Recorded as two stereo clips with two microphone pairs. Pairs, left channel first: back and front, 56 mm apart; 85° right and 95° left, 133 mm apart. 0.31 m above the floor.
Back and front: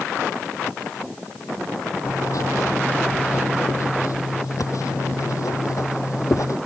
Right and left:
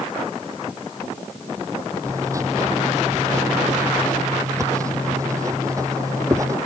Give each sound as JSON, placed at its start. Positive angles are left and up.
{"t": 2.0, "sound": "writing", "azimuth_deg": 165}